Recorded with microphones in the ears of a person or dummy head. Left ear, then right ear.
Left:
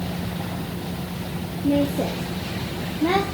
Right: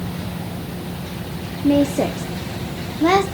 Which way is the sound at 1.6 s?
50° right (ahead or behind).